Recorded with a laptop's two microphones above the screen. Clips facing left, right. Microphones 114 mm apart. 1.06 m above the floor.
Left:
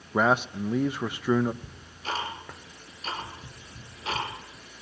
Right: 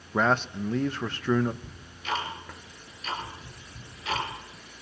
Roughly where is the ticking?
Left.